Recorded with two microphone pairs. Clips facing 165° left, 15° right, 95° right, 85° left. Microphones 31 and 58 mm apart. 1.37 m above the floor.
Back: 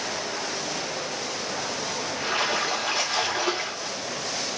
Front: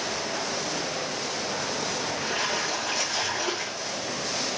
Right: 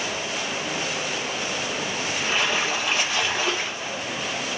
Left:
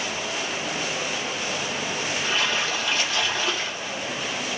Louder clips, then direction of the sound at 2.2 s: Back 5 dB, right 2 dB; 160° right.